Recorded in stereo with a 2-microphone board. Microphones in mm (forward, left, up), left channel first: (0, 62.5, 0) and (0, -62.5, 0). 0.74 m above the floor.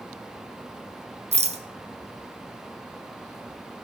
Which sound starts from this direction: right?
A rattle, at 1.3 s.